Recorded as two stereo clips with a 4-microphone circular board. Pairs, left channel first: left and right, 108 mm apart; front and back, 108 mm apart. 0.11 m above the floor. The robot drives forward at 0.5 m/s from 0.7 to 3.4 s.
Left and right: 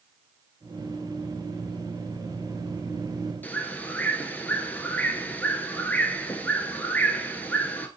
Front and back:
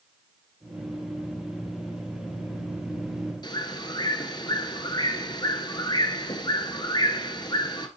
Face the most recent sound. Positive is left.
turn(degrees=20)